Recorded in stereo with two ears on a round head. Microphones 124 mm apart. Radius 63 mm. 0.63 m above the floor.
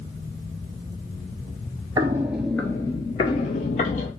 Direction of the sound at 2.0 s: 30° right (ahead or behind).